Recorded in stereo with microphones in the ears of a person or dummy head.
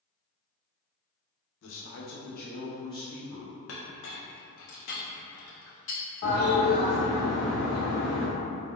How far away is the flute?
No flute in this recording.